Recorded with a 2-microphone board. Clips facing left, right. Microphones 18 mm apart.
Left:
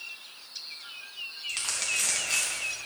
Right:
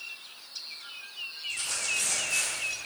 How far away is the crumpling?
About 3.5 m.